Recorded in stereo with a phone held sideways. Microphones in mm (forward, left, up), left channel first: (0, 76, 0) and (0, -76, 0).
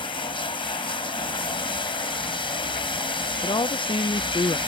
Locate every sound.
0.0 s running water: 35° left (ahead or behind)
3.4 s a woman speaking: 30° left (ahead or behind)